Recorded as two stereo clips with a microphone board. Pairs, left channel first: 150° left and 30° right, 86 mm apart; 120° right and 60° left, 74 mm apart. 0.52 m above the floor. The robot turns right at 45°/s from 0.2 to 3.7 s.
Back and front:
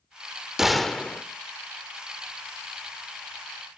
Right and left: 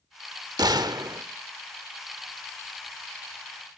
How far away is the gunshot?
About 0.6 m.